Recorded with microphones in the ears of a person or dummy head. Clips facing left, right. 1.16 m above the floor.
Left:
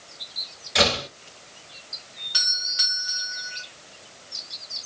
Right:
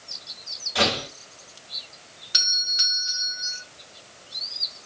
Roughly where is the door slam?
Left.